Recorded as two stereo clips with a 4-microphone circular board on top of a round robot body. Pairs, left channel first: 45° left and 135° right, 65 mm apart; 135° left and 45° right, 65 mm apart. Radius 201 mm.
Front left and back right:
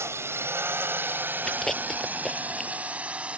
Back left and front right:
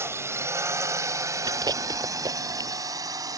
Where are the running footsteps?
I don't hear running footsteps.